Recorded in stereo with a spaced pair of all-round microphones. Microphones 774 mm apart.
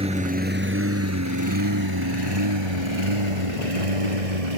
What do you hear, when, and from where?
0.0 s a lawn mower: 5° right (ahead or behind); by 4.6 s 50° right (ahead or behind)